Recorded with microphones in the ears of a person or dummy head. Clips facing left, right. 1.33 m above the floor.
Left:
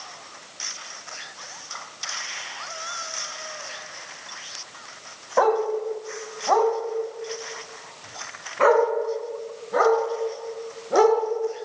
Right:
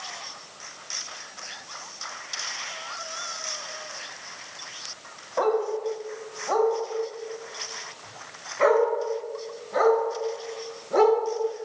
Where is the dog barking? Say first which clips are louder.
Left 3 dB; 70° left (ahead or behind), 2.5 m; by 11.2 s 45° left (ahead or behind), 6.5 m.